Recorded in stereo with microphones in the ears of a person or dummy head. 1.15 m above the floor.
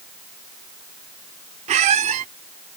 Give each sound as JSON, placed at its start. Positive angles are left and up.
{"t": 1.7, "sound": "a squeak", "side_deg": -30}